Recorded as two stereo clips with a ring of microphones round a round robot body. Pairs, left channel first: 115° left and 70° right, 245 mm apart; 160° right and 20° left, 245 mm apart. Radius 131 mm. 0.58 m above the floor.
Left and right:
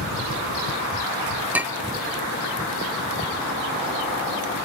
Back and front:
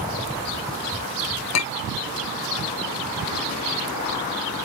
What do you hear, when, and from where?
1.5 s a clink: 150° right